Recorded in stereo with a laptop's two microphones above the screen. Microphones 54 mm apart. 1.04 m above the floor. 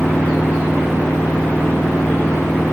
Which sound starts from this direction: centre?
A machine running, at 0.0 s.